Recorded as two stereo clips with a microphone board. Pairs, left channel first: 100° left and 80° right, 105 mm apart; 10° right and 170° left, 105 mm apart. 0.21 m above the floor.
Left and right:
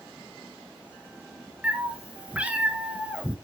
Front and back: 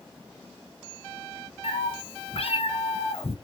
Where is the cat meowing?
Straight ahead, 1.1 m.